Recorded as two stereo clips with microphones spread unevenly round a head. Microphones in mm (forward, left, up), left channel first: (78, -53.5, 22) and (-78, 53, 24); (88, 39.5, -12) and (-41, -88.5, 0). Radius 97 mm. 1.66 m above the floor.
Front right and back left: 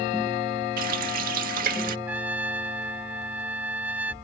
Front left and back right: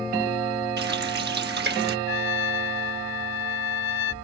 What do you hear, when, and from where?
0.8 s a running tap: 170° right
2.1 s a trumpet: 65° left